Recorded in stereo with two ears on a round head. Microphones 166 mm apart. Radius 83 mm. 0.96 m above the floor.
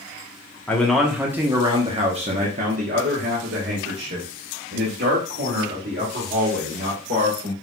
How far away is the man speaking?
About 1.0 m.